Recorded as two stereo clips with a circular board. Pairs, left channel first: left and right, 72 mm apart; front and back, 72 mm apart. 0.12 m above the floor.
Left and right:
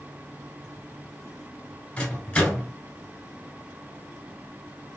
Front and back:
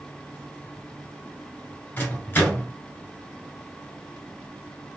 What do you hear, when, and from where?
2.0 s a microwave: 35° left, 1.6 m